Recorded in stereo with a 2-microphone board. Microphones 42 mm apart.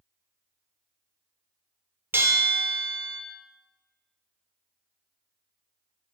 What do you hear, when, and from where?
2.1 s a bell: 70° right (ahead or behind), 0.8 m